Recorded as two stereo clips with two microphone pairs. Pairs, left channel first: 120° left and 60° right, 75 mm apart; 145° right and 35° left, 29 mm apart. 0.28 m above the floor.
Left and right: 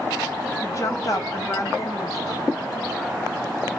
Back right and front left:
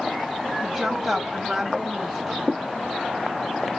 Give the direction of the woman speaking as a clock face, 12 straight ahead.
8 o'clock.